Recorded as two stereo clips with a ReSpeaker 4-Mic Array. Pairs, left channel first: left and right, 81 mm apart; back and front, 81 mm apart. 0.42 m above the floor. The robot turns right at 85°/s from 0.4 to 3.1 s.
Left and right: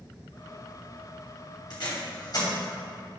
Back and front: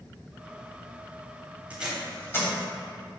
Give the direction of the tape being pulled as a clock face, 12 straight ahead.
10 o'clock.